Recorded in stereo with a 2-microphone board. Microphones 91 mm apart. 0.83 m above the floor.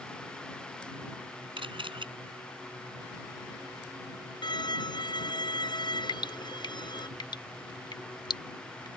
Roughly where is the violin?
Left.